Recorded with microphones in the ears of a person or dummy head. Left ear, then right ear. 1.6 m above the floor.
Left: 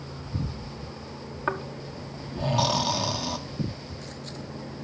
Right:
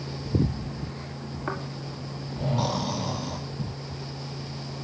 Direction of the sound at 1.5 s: 35° left (ahead or behind).